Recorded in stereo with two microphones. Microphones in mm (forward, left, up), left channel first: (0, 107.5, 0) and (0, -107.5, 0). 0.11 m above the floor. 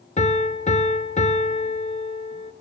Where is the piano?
35° left (ahead or behind), 0.7 m.